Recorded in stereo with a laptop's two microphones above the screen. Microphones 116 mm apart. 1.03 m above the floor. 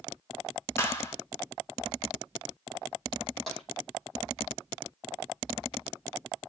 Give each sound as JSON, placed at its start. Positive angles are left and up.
{"t": 0.8, "sound": "a clap", "side_deg": 25, "distance_m": 1.8}
{"t": 3.5, "sound": "tapping", "side_deg": 5, "distance_m": 6.0}